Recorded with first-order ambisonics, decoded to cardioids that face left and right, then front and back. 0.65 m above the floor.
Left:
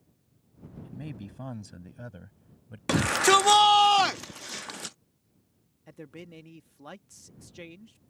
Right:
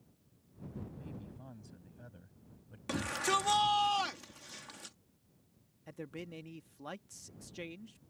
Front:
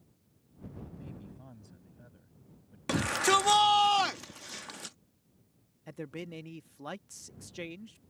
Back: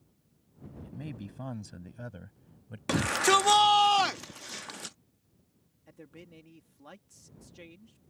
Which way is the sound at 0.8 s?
130° left.